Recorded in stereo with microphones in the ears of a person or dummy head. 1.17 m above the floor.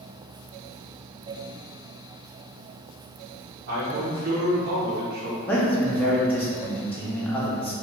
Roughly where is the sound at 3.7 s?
Right.